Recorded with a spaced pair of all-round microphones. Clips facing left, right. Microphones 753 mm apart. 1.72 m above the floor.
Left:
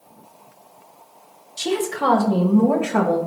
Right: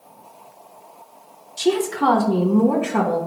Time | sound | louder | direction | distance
1.6 | a woman speaking | right 4 dB | 5° left (ahead or behind) | 0.9 m